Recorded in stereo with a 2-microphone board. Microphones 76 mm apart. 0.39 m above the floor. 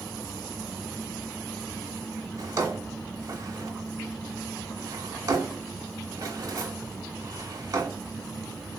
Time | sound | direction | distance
2.4 | a drawer | 45° right (ahead or behind) | 1.1 m